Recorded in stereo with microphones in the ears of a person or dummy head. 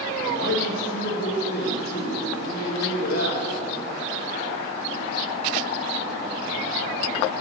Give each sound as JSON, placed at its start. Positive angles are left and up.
{"t": 0.1, "sound": "a man speaking", "side_deg": 50, "distance_m": 1.9}